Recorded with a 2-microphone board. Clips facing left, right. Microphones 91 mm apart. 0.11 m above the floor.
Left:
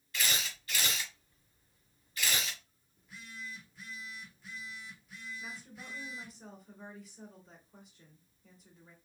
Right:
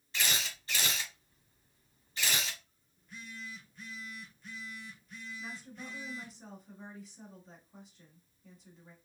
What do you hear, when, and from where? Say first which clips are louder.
0.1 s a camera shutter: even; 25° right (ahead or behind), 1.8 m
3.0 s a phone buzzing: right 1 dB; 5° left (ahead or behind), 1.3 m
5.4 s a woman speaking: right 2 dB; centre (ahead or behind), 1.7 m